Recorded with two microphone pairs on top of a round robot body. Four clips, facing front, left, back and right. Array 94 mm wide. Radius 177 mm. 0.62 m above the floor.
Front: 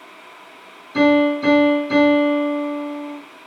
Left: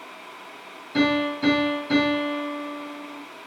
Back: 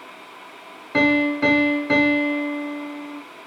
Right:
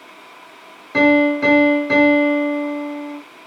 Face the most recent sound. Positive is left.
turn(degrees=-130)